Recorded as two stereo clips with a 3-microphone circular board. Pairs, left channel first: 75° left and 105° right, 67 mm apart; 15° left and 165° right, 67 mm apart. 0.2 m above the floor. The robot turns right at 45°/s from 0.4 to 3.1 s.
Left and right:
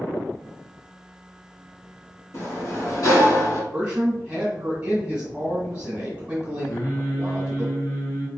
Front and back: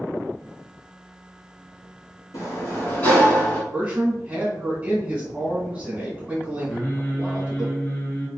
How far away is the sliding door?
About 1.2 m.